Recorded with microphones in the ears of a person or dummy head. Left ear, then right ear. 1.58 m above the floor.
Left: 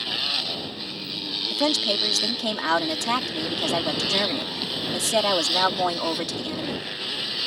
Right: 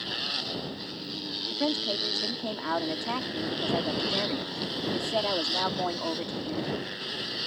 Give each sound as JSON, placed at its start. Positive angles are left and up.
{"t": 0.0, "sound": "a motorcycle", "side_deg": 15}
{"t": 1.5, "sound": "a woman speaking", "side_deg": 75}